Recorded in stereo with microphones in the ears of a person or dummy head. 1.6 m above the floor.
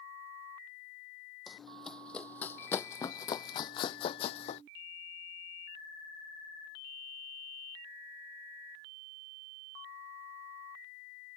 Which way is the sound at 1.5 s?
Centre (ahead or behind).